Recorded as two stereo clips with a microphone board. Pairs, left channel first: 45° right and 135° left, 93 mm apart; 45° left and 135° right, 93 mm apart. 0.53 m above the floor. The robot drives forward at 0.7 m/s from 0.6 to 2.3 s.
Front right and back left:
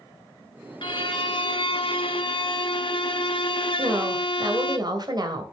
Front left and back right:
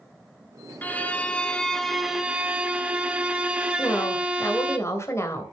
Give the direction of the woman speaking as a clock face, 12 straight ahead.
9 o'clock.